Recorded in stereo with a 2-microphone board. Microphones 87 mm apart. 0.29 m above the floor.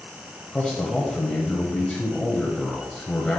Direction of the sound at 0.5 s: 10° left (ahead or behind).